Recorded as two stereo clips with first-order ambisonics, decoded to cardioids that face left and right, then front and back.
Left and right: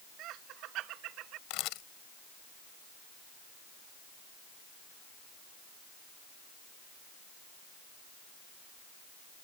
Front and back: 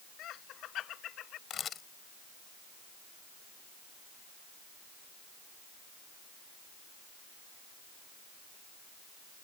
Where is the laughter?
50° right.